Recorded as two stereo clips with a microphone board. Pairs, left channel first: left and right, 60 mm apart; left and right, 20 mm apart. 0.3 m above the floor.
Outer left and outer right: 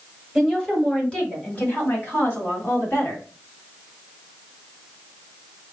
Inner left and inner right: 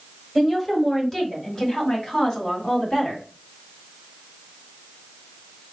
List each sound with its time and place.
0.3 s a woman speaking: 5° left (ahead or behind), 1.5 m; by 3.2 s 40° left (ahead or behind), 3 m